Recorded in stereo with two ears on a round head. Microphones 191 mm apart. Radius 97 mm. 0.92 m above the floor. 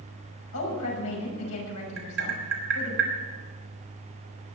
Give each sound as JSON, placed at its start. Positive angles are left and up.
{"t": 0.5, "sound": "a woman speaking", "side_deg": 85, "distance_m": 6.0}
{"t": 2.0, "sound": "tapping", "side_deg": -65, "distance_m": 3.5}